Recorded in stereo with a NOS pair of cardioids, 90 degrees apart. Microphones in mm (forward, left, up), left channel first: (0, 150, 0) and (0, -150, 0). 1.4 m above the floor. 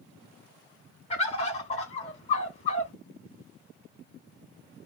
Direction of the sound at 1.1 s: 20° left.